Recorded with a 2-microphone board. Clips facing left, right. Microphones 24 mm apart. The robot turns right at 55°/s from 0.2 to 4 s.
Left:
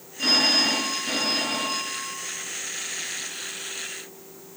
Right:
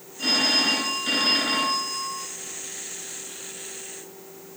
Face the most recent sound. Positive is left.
turn(degrees=15)